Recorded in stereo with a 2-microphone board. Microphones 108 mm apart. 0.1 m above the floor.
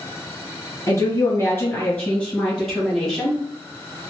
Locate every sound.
0.9 s a woman speaking: 30° left (ahead or behind), 1.7 m; by 3.4 s 5° right (ahead or behind), 2.5 m